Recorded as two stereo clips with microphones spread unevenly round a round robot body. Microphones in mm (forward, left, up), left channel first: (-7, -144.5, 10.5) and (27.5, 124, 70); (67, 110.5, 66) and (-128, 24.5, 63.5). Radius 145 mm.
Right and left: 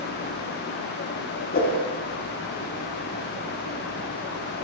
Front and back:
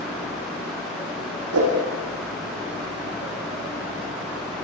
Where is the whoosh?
155° right, 8.5 m.